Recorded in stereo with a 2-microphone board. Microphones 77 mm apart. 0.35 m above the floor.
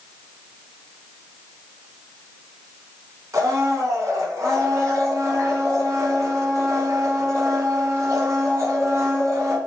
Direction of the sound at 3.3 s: 45° right (ahead or behind).